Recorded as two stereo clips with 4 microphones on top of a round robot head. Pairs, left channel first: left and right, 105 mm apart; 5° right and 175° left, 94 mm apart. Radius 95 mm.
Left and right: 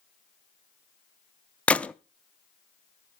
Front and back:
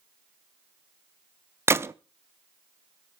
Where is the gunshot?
155° left, 0.6 m.